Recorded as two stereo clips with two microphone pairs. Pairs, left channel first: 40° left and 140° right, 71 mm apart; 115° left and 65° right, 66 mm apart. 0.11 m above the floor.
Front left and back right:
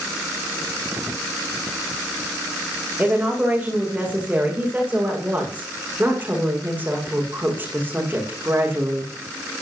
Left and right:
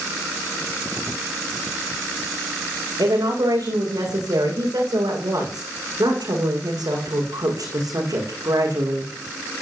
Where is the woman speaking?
70° right, 9 m; by 9.1 s 85° right, 6.5 m.